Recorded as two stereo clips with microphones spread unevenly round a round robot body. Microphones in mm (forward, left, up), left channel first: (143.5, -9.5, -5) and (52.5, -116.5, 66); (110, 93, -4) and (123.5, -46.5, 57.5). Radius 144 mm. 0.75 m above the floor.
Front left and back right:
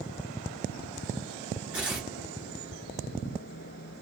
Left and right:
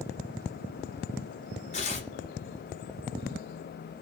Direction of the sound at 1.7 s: 135° left.